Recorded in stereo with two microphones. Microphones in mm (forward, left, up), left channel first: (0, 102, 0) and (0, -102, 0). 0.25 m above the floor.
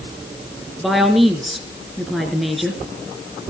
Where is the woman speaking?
Centre (ahead or behind), 4 m.